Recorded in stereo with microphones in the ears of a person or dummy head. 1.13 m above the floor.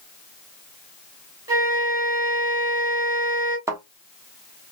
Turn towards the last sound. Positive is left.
turn(degrees=-20)  # may be behind; listen again after turning